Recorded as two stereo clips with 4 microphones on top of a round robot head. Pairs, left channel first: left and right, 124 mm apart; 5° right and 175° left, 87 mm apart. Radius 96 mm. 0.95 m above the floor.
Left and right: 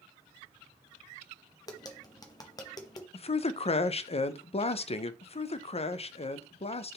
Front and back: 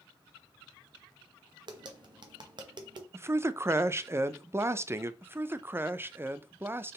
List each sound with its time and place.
1.7 s tapping: 145° left, 1.0 m
3.1 s a man speaking: 115° left, 0.5 m
5.2 s a man speaking: 115° left, 0.6 m